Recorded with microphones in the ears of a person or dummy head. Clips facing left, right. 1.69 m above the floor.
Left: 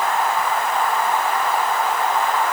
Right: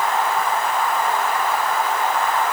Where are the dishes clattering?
No dishes clattering in this recording.